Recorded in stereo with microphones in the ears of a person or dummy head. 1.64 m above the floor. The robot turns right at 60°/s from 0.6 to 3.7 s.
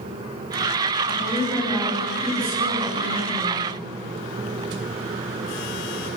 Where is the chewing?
No chewing in this recording.